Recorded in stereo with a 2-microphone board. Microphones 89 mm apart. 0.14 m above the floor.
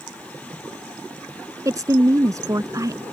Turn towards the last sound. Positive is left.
turn(degrees=-40)  # may be behind; listen again after turning